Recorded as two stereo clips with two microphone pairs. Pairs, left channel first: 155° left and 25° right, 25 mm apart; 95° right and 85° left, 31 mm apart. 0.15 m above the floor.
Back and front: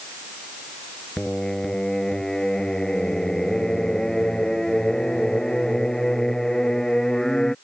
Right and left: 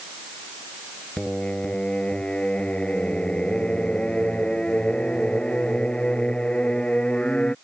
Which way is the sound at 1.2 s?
140° right.